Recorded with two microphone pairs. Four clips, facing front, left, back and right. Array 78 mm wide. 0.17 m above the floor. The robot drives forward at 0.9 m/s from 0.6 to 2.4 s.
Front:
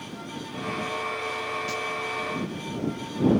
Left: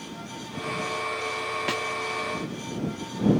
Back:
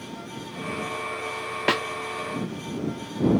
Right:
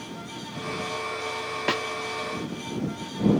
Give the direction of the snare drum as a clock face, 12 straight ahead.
5 o'clock.